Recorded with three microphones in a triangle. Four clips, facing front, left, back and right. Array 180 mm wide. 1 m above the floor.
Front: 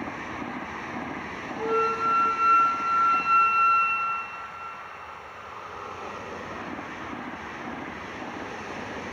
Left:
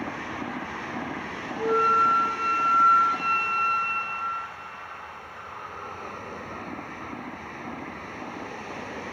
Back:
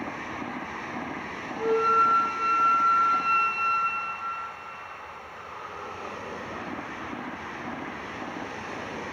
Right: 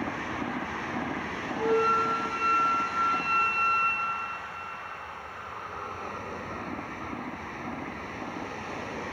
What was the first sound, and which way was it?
A flute, 150° right.